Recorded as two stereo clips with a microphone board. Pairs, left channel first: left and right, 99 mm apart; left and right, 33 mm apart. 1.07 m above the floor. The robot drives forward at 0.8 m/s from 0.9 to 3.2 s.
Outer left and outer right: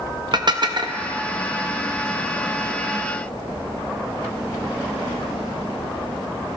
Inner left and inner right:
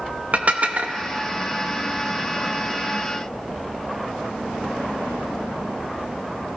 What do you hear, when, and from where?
0.3 s dishes clattering: 45° right (ahead or behind), 0.8 m